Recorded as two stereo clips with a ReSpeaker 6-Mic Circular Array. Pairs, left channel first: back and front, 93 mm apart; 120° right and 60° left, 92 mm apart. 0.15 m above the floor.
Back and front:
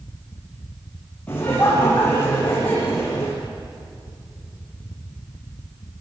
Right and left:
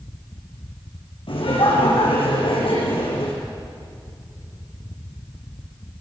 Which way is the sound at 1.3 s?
105° right.